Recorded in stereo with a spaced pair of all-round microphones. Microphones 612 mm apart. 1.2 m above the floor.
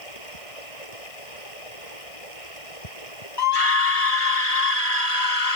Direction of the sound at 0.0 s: 60° left (ahead or behind).